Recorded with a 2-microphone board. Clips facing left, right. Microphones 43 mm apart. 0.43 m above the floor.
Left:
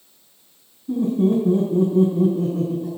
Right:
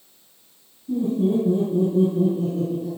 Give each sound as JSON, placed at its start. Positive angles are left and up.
{"t": 0.9, "sound": "laughter", "side_deg": 65, "distance_m": 3.5}